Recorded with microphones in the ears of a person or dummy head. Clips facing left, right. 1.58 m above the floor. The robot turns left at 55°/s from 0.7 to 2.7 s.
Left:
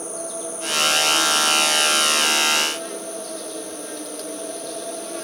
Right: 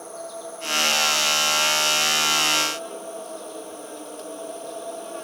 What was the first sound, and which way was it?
An insect, 135° left.